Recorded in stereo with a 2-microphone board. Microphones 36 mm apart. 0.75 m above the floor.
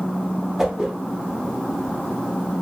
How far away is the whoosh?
About 0.6 m.